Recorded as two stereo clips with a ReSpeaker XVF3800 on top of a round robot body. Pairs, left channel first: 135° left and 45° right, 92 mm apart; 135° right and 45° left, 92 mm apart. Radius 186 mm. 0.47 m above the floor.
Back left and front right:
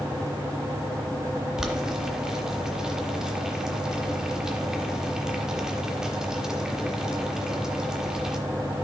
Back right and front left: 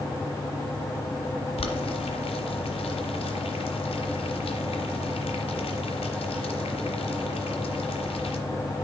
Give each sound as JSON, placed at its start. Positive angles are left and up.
{"t": 1.6, "sound": "boiling", "azimuth_deg": -130, "distance_m": 0.9}